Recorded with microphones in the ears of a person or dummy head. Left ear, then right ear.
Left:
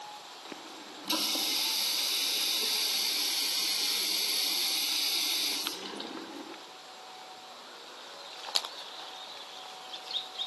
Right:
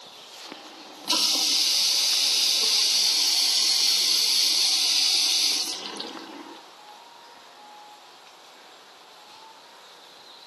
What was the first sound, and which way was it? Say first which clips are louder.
A running tap: right 2 dB; 30° right (ahead or behind).